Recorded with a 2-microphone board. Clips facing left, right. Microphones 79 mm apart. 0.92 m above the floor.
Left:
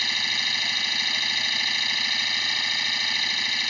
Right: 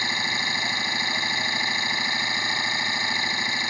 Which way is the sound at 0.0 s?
30° right (ahead or behind).